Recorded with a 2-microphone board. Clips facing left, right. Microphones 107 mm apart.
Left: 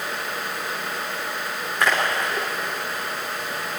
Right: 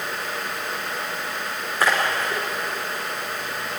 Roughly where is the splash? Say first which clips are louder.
Even; centre.